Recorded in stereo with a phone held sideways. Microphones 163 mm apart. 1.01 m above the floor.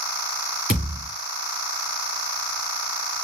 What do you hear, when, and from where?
0.7 s a thud: 70° right (ahead or behind), 3 m